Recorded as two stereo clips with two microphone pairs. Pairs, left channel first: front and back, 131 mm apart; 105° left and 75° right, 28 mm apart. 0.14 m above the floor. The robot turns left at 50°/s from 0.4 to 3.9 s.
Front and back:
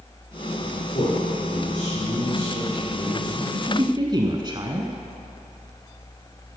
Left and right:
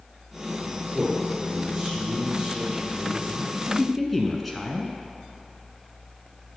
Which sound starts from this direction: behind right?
A woman speaking, at 3.4 s.